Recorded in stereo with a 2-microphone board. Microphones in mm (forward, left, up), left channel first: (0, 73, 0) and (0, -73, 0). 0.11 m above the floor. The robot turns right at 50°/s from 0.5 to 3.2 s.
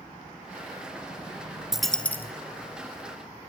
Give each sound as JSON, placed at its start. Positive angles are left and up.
{"t": 1.7, "sound": "a dropped coin", "azimuth_deg": -5, "distance_m": 0.5}